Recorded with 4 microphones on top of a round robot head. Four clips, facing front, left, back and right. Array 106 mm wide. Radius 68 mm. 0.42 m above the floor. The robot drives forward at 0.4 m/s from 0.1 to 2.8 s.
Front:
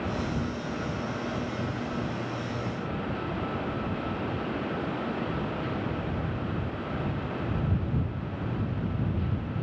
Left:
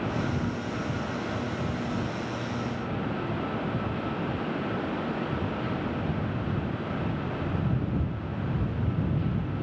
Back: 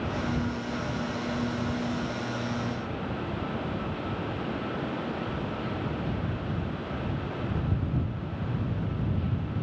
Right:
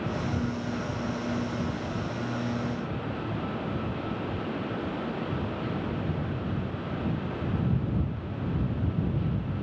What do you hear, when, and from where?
Only background noise.